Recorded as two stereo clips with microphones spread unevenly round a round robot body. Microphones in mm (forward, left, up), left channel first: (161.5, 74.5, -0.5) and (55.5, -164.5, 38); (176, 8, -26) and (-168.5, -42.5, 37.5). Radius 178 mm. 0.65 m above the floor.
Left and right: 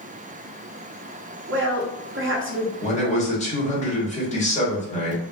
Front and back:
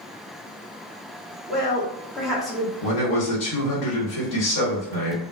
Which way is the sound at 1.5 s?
75° right.